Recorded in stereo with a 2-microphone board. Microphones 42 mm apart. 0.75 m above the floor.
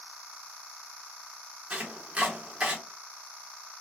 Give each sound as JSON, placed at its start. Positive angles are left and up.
{"t": 1.7, "sound": "chopping", "side_deg": -25, "distance_m": 1.0}